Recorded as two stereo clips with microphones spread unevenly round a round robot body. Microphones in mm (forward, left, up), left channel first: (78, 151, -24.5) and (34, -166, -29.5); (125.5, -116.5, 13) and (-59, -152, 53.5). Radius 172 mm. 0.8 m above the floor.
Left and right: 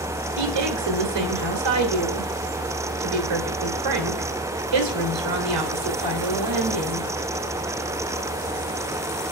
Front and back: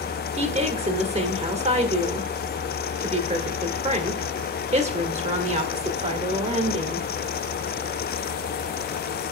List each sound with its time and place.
0.4 s a woman speaking: 110° right, 2.5 m